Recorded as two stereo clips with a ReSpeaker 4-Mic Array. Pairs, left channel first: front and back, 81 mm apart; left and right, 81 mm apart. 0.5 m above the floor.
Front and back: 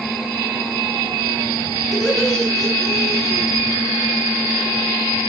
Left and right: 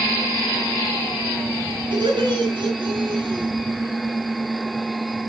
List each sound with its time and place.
1.9 s laughter: 85° right, 5.5 m